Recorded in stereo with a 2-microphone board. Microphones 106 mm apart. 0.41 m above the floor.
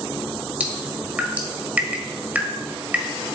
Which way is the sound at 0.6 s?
15° right (ahead or behind).